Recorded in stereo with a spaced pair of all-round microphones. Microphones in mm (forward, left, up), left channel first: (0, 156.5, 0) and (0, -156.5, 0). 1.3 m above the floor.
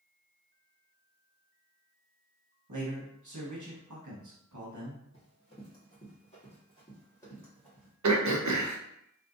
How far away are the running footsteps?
About 2.0 m.